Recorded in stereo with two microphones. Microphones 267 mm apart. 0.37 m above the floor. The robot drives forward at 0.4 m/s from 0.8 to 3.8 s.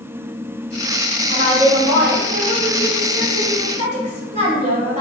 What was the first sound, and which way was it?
A woman speaking, 20° right (ahead or behind).